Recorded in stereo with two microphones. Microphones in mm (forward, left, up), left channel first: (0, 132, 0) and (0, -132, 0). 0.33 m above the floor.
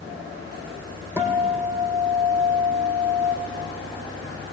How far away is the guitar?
About 3.5 m.